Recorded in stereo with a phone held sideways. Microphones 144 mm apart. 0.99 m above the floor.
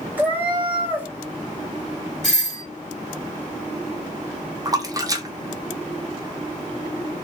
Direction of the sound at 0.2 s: 10° right (ahead or behind).